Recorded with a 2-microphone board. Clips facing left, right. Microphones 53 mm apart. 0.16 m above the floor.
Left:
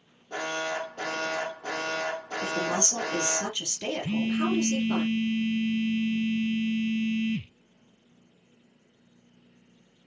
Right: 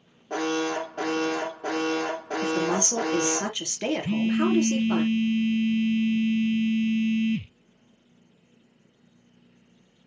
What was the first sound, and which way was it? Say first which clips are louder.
An alarm: right 5 dB; 50° right (ahead or behind).